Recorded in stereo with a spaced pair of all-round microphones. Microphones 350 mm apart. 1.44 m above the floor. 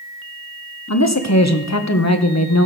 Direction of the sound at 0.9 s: 50° left (ahead or behind).